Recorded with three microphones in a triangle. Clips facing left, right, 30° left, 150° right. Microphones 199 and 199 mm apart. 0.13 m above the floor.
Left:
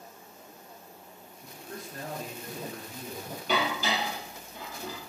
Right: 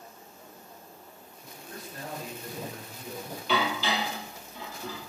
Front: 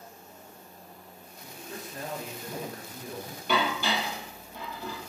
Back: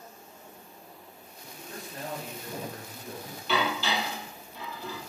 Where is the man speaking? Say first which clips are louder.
Left 2 dB, front 1 dB; 95° left, 2 m.